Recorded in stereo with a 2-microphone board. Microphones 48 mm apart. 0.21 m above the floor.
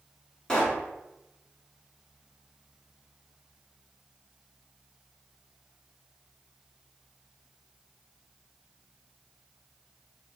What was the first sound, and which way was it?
A pop, 20° left (ahead or behind).